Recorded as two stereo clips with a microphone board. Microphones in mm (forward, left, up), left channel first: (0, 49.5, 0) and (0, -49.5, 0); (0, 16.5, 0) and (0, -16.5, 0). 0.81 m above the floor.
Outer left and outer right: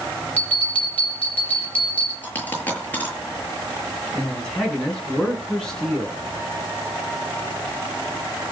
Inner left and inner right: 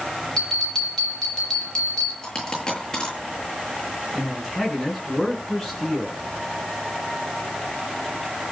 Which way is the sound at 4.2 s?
5° left (ahead or behind).